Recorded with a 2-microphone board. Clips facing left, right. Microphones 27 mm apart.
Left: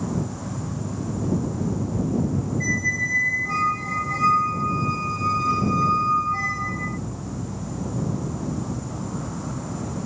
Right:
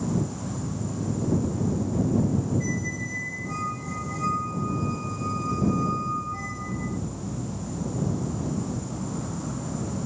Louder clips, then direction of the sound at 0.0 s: Even; 20° left (ahead or behind).